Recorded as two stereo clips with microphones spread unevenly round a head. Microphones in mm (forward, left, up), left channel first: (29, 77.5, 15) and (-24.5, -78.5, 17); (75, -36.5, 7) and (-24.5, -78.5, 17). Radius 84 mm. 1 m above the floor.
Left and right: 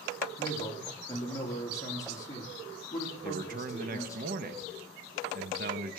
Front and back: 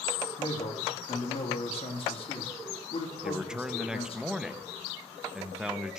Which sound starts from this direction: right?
A man speaking, at 3.2 s.